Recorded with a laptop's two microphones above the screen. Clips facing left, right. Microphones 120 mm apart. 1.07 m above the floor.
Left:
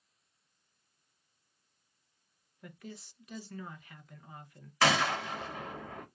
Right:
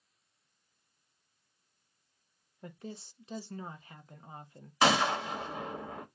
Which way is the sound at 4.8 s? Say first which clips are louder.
Right 2 dB; 20° right (ahead or behind).